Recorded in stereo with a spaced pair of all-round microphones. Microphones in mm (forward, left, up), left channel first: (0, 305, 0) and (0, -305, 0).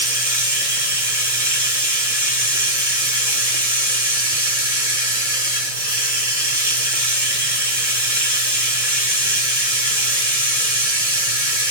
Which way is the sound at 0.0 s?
75° right (ahead or behind).